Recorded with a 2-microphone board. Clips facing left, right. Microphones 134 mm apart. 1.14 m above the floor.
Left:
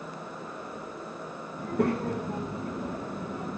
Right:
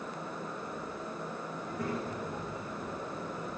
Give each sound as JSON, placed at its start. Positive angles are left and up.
{"t": 1.6, "sound": "a child speaking", "side_deg": 65, "distance_m": 1.1}